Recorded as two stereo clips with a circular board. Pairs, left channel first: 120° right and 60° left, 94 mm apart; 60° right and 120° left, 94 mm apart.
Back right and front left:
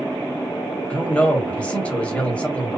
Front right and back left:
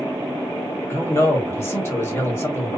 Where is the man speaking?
60° right, 1.0 m.